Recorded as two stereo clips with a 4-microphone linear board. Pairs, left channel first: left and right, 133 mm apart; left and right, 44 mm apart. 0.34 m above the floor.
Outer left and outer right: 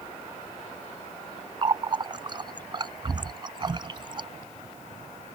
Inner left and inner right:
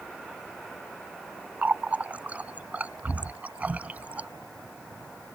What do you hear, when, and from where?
1.6 s a running tap: 35° right (ahead or behind)